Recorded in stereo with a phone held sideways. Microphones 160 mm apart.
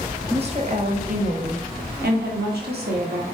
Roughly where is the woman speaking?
Right.